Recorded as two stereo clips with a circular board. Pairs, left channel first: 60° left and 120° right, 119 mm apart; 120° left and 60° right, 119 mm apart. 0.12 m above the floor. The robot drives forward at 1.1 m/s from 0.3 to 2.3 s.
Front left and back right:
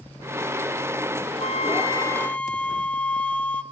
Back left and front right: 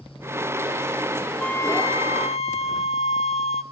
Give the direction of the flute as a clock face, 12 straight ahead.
11 o'clock.